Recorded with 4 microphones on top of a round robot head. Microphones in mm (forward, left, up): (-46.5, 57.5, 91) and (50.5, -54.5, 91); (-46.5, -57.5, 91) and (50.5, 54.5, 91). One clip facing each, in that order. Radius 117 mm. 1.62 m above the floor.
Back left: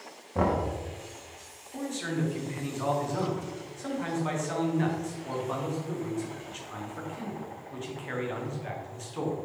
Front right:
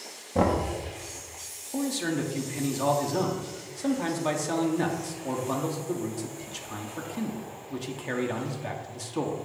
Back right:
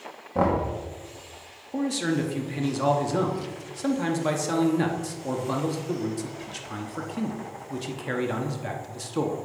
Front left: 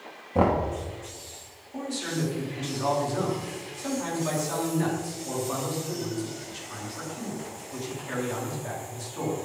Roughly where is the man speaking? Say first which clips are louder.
Front right 4 dB, back right 6 dB; right.